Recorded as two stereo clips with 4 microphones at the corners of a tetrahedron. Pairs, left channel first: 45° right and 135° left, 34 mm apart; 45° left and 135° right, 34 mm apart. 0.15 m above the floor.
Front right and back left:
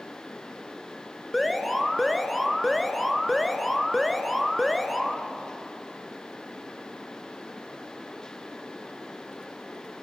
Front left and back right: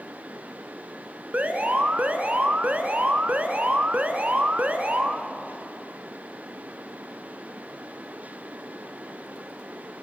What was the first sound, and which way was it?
An alarm, 135° right.